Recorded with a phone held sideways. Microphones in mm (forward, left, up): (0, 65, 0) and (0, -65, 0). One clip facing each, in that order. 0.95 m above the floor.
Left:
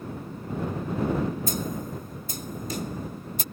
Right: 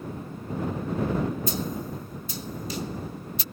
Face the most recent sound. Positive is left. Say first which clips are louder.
# even
turn(degrees=45)  # may be behind; listen again after turning